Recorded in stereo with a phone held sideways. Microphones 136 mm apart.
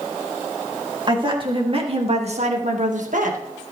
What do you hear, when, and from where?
1.1 s a woman speaking: 35° right (ahead or behind), 2.5 m; by 3.4 s 75° right (ahead or behind), 1.9 m